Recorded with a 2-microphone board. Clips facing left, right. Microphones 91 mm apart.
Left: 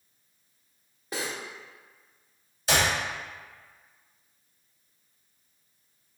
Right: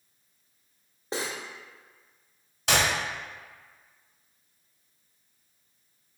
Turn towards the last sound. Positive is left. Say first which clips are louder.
# even
turn(degrees=-65)  # may be behind; listen again after turning